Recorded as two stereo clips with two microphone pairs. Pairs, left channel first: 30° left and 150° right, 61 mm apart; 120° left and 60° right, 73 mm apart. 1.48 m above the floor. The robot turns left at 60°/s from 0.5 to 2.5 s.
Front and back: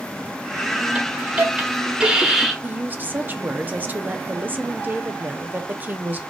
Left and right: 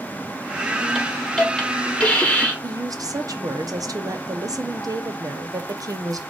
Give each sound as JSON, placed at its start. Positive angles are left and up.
{"t": 0.9, "sound": "a hiss", "azimuth_deg": -140, "distance_m": 1.2}
{"t": 2.6, "sound": "a woman speaking", "azimuth_deg": -90, "distance_m": 0.6}